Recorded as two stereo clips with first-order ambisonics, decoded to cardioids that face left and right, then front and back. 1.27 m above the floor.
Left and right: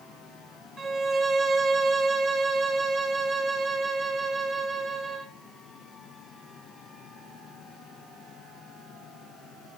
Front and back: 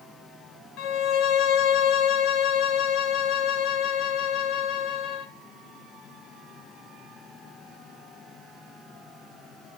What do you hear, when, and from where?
0.8 s a violin: 15° right, 0.8 m